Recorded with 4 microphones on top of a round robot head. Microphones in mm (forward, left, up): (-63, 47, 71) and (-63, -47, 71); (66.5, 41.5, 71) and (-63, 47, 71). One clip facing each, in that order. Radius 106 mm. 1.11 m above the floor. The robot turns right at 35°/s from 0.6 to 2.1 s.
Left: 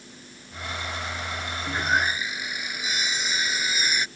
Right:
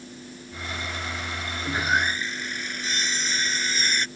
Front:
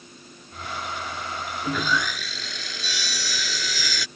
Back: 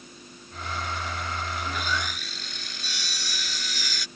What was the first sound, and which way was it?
Sawing, 10° right.